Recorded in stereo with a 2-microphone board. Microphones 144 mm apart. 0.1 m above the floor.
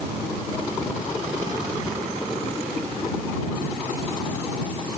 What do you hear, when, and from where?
Only background noise.